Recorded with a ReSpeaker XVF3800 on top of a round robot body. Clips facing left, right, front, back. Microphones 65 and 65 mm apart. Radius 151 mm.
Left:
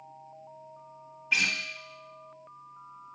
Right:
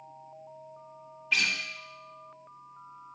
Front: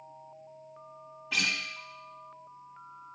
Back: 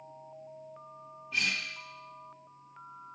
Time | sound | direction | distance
1.3 | a guitar | 10° left | 1.2 m